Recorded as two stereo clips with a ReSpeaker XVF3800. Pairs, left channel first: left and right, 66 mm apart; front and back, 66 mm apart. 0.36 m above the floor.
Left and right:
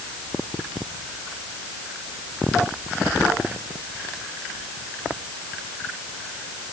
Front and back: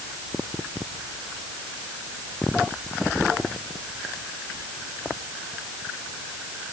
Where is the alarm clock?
No alarm clock in this recording.